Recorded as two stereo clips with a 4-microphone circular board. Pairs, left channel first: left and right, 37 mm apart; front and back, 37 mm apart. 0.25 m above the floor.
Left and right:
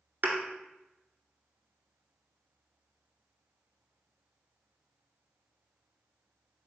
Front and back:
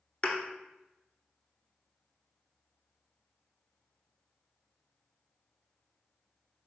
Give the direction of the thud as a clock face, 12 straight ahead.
2 o'clock.